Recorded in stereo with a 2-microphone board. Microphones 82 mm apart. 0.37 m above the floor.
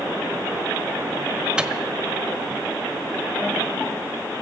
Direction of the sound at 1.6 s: 10° right (ahead or behind).